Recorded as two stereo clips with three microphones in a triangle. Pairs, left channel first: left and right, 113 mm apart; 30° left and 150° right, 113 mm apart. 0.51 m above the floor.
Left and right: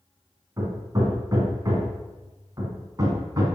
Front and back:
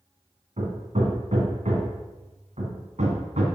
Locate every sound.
0.6 s hammering: 150° right, 2 m